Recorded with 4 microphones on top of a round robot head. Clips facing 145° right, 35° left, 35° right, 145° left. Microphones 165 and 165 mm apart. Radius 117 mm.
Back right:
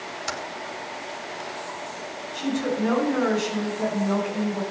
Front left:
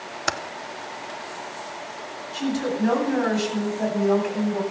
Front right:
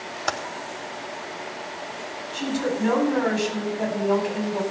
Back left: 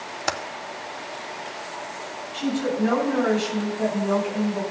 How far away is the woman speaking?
About 9.5 m.